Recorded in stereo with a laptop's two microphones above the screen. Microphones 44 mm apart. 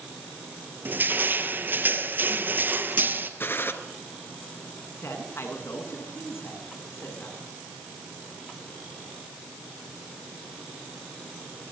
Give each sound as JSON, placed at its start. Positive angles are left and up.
{"t": 0.8, "sound": "crushing", "side_deg": -50, "distance_m": 3.5}
{"t": 3.4, "sound": "a gunshot", "side_deg": 55, "distance_m": 3.0}
{"t": 5.0, "sound": "a man speaking", "side_deg": 80, "distance_m": 9.5}